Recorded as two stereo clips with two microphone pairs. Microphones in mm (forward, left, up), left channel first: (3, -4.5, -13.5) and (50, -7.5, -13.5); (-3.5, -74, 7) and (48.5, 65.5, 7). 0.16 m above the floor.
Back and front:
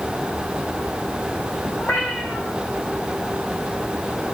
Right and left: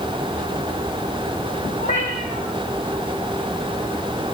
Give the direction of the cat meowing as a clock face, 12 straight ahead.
5 o'clock.